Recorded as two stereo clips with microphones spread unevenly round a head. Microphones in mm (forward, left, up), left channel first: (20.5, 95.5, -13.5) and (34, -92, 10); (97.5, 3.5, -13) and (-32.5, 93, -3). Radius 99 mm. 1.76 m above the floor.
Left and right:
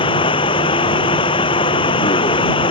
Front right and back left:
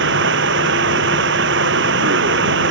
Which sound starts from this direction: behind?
Running water, at 0.0 s.